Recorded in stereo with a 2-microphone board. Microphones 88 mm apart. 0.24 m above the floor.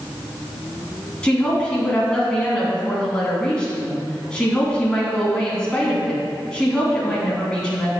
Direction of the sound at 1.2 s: 10° left (ahead or behind).